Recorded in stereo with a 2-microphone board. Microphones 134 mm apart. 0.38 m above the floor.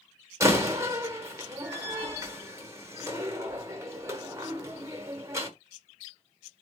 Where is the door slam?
20° right (ahead or behind), 0.9 m.